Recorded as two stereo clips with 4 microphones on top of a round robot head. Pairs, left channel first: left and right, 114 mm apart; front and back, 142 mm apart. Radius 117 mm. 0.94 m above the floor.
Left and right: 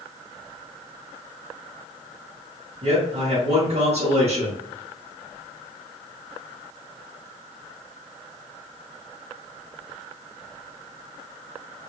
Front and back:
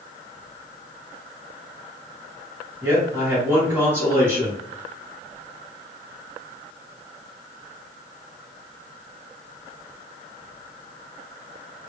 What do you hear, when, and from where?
2.8 s a man speaking: 105° right, 1.7 m